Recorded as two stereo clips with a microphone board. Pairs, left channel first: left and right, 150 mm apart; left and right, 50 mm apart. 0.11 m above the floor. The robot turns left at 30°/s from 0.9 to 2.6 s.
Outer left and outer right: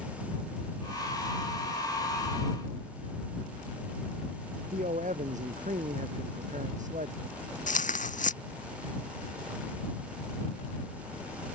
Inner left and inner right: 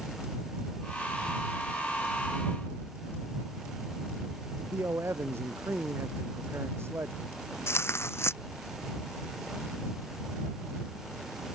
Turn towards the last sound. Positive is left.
turn(degrees=60)  # may be behind; listen again after turning